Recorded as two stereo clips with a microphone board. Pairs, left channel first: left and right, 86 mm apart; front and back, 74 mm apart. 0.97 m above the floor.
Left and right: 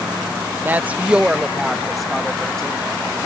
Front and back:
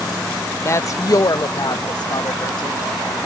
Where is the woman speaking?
30° right; by 2.8 s 10° left.